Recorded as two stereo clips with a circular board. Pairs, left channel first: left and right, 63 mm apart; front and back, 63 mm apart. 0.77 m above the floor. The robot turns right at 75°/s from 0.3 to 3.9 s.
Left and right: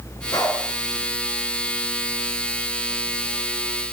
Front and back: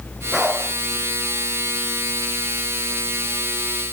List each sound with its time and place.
0.3 s a dog barking: 95° left, 6 m; by 0.7 s 120° left, 6 m